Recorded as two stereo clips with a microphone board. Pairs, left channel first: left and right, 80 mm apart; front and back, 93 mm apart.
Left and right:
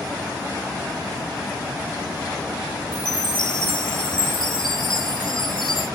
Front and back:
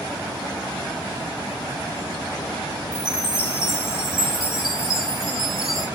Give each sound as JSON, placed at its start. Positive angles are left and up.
{"t": 2.9, "sound": "a chime", "azimuth_deg": 95, "distance_m": 6.0}